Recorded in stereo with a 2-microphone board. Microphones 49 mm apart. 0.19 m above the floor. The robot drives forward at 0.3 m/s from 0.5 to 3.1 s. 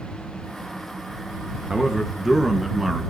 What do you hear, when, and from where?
1.7 s a man speaking: 5° right (ahead or behind), 2 m